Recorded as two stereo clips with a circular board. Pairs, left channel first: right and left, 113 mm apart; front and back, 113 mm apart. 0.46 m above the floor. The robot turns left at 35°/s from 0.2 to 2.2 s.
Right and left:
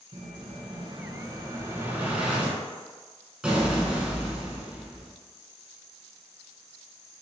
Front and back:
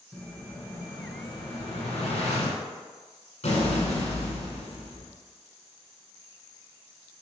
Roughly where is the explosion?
Left.